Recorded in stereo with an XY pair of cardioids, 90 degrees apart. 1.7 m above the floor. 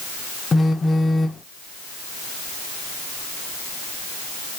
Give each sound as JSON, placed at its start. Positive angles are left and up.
{"t": 0.5, "sound": "a phone buzzing", "azimuth_deg": 35, "distance_m": 0.6}